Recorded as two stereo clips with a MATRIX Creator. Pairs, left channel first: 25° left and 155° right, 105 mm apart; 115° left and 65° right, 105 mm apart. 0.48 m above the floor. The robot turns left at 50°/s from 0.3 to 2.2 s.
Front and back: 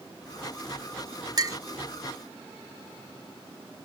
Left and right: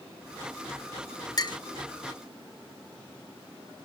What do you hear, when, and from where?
1.4 s a clink: 155° left, 0.8 m; by 1.6 s 145° left, 0.8 m